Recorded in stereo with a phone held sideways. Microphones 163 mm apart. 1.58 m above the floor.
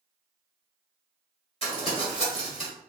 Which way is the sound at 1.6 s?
35° left (ahead or behind).